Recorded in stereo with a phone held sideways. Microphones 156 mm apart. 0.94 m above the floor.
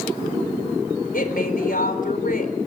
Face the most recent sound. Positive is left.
turn(degrees=65)  # may be behind; listen again after turning